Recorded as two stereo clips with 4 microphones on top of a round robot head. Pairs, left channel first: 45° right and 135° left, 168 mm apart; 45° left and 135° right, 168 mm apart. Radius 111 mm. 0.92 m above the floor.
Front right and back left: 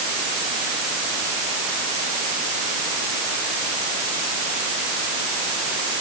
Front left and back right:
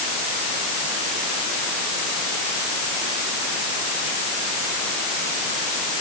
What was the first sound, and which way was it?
Only background noise.